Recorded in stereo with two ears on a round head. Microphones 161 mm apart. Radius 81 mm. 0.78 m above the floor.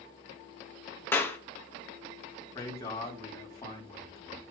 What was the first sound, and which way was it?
A clap, 10° left (ahead or behind).